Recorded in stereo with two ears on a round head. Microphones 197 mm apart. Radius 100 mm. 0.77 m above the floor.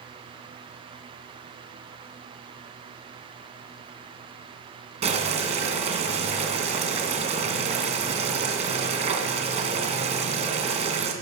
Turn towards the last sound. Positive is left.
turn(degrees=-30)  # may be behind; listen again after turning